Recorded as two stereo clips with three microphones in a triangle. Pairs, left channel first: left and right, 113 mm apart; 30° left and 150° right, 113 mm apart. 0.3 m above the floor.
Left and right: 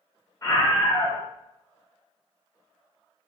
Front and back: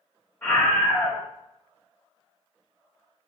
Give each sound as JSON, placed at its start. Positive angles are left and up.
{"t": 0.4, "sound": "a scream", "azimuth_deg": 80, "distance_m": 1.0}